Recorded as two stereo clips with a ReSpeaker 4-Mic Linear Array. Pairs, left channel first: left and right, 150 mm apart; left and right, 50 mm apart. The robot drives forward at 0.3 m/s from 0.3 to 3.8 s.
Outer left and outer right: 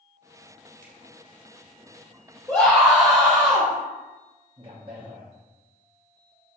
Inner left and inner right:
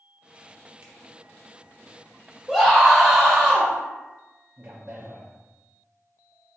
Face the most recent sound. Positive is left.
turn(degrees=-35)  # may be behind; listen again after turning